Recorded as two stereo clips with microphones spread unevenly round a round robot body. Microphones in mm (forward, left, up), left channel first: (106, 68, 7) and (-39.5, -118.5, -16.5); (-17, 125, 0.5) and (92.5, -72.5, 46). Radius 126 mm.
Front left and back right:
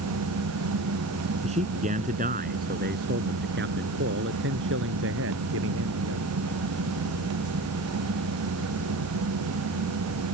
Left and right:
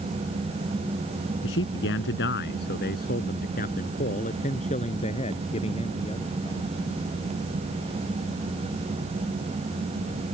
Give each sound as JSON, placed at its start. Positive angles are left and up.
{"t": 1.4, "sound": "a man speaking", "azimuth_deg": 165}